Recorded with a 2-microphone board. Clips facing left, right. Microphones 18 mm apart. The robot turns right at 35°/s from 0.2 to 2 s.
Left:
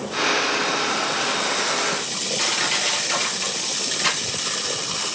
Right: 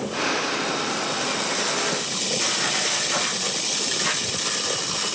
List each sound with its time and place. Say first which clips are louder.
2.4 s crushing: left 3 dB; 35° left (ahead or behind), 3.5 m